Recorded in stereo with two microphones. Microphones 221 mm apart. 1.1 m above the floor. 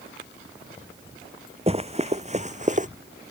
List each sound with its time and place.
1.7 s running footsteps: 30° right (ahead or behind); by 2.9 s 35° right (ahead or behind)